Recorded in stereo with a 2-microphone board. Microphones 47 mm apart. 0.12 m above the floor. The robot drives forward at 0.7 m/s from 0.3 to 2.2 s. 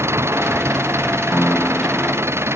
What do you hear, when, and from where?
0.0 s an engine running: 85° right; by 2.6 s 80° right
1.3 s a piano: 15° left (ahead or behind)